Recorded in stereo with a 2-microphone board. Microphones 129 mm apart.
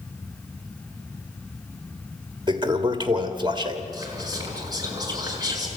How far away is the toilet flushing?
About 1.4 m.